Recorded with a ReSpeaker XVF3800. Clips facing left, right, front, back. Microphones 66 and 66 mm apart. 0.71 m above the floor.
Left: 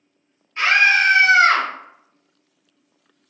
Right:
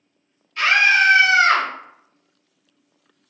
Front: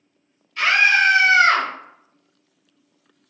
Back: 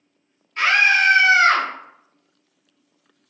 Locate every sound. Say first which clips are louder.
0.6 s a scream: even, even; 145° left, 1.6 m; by 1.7 s 125° left, 1.9 m